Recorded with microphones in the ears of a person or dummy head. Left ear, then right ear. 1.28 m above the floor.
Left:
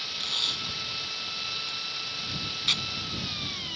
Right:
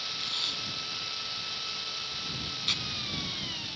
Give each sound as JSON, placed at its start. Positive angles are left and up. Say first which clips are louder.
{"t": 0.2, "sound": "tape being pulled", "louder": "left 5 dB", "side_deg": 15}